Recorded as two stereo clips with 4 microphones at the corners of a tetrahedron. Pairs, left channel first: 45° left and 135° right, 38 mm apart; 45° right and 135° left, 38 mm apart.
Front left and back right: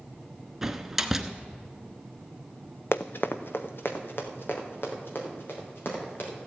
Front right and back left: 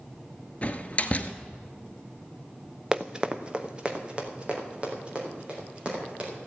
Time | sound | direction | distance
0.6 | a door slam | 60° right | 0.9 m
2.9 | running footsteps | 60° left | 0.6 m